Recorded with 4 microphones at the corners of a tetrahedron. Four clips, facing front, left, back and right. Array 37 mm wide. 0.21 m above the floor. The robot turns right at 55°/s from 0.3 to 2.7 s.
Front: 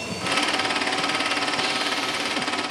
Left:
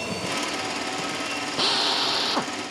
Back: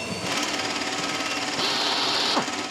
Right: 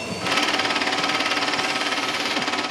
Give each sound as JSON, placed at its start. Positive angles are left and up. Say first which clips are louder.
{"t": 1.6, "sound": "a drill", "louder": "left 1 dB, even", "azimuth_deg": 105}